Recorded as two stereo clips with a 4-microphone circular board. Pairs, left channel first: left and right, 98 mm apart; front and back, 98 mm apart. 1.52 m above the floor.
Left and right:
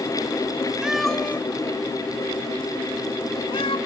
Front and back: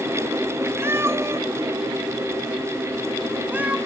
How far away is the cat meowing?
About 0.7 m.